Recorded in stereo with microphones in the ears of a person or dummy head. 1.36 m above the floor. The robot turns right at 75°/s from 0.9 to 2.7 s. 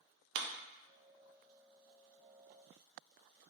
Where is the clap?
70° right (ahead or behind), 0.6 m.